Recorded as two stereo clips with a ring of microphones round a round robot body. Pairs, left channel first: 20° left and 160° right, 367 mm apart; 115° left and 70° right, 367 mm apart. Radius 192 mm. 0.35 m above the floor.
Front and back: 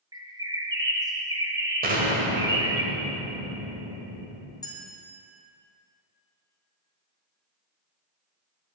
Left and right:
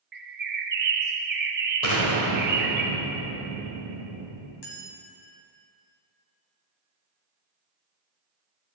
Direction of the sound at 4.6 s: 100° left.